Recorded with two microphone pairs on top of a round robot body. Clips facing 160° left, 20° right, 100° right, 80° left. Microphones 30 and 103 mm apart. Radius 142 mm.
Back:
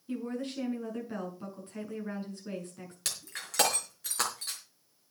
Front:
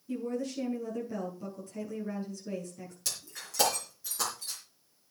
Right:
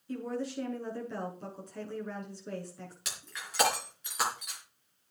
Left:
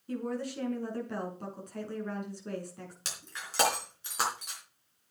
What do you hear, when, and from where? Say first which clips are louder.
0.1 s a woman speaking: front 2 dB, left 1 dB; 115° left, 7 m
3.0 s breaking glass: back 2 dB, left 1 dB; 140° left, 5 m